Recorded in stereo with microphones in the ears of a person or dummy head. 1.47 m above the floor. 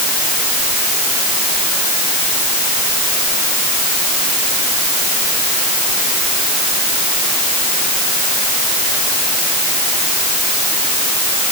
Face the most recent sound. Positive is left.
No sound to turn to.